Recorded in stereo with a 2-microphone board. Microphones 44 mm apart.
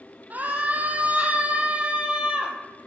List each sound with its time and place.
0.3 s a scream: 40° right (ahead or behind), 3.5 m; by 2.6 s 25° right (ahead or behind), 3 m